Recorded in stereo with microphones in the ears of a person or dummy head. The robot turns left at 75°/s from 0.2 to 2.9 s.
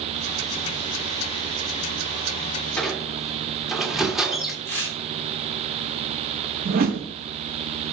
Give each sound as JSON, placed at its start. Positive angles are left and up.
{"t": 2.8, "sound": "a squeak", "side_deg": 5, "distance_m": 2.0}
{"t": 4.7, "sound": "tearing paper", "side_deg": 15, "distance_m": 5.0}
{"t": 6.7, "sound": "a whoosh", "side_deg": -50, "distance_m": 1.0}